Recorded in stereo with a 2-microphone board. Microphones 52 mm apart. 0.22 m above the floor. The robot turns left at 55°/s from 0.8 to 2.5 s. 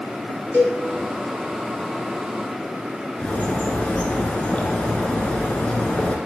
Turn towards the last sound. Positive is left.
turn(degrees=30)  # may be behind; listen again after turning